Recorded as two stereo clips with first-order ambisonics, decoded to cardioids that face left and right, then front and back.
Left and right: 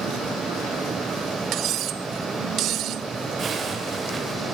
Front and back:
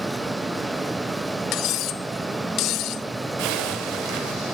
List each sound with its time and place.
1.5 s cutlery clinking: 45° right, 0.6 m
3.4 s a zipper: 160° right, 4 m